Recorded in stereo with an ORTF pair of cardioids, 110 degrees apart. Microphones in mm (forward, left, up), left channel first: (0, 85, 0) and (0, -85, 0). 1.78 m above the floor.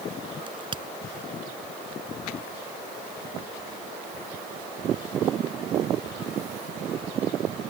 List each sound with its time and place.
0.5 s a crack: 30° right